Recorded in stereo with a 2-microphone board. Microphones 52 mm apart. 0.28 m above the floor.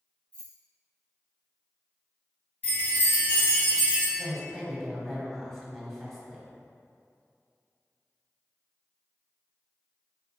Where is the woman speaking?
Centre (ahead or behind), 1.3 m.